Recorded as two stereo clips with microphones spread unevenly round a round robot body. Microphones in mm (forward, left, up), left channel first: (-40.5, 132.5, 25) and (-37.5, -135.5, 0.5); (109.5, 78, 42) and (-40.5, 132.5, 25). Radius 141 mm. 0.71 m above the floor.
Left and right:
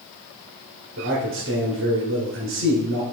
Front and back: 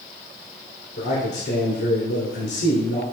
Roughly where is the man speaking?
Ahead right.